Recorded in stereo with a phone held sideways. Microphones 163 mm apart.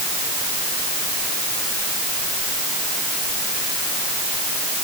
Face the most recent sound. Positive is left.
No sound to turn to.